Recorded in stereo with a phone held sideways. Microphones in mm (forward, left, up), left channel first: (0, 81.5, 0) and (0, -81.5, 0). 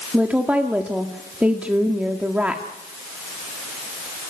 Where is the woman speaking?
10° right (ahead or behind), 1.6 m.